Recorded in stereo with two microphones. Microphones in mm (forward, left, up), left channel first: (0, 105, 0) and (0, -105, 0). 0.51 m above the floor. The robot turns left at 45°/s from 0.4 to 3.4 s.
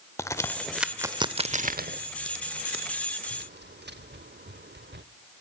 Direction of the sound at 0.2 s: 15° left (ahead or behind).